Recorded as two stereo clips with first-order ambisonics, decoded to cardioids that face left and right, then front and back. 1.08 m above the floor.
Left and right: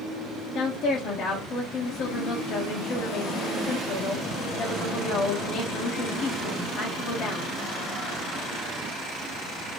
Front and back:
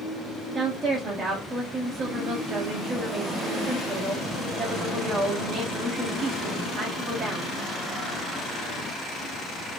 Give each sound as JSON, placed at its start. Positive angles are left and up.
{"t": 0.6, "sound": "a woman speaking", "azimuth_deg": 125, "distance_m": 0.7}